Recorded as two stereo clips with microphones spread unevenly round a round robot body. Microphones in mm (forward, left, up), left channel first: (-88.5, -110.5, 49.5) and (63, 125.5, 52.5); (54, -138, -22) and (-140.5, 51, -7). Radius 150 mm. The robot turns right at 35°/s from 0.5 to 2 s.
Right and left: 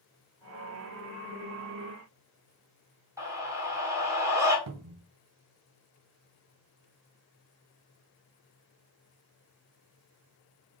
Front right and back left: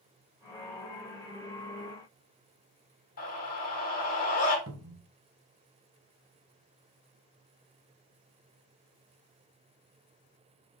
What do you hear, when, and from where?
3.2 s a scream: 15° right, 1.5 m
4.7 s a cupboard door: 90° left, 0.7 m